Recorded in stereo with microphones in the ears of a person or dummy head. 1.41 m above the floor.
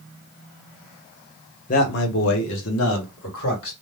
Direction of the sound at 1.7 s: 40° left (ahead or behind).